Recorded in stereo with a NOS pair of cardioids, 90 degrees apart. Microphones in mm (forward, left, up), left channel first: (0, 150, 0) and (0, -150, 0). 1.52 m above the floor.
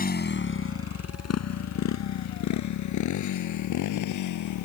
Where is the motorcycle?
30° left; by 4.7 s 80° left.